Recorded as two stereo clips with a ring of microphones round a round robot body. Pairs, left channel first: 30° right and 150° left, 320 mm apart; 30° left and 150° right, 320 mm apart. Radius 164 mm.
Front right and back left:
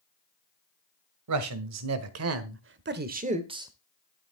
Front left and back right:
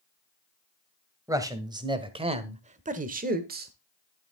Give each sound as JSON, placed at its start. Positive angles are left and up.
{"t": 1.3, "sound": "a man speaking", "azimuth_deg": 130, "distance_m": 1.8}